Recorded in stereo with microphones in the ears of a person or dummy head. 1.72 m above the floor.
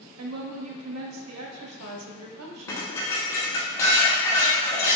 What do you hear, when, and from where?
0.2 s a woman speaking: 85° right, 0.6 m
2.7 s dishes clattering: 20° left (ahead or behind), 0.8 m